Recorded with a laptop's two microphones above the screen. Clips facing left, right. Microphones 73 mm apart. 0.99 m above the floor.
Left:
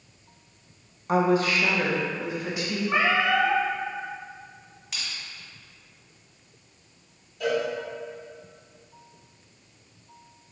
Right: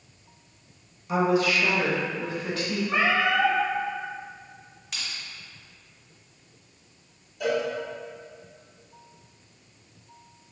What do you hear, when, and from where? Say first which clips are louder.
1.1 s a woman speaking: left 1 dB; 50° left (ahead or behind), 0.6 m; by 2.8 s 15° left (ahead or behind), 2.0 m
2.9 s a cat meowing: left 1 dB; 30° left (ahead or behind), 2.0 m
4.9 s crushing: even; 5° left (ahead or behind), 1.4 m
7.4 s a cowbell: even; 5° right (ahead or behind), 0.8 m